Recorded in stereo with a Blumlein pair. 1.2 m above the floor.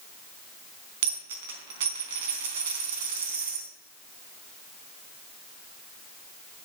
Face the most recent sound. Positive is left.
turn(degrees=-55)